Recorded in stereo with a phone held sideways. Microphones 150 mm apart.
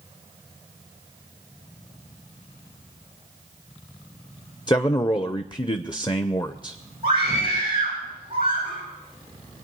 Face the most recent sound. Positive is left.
turn(degrees=-35)  # may be behind; listen again after turning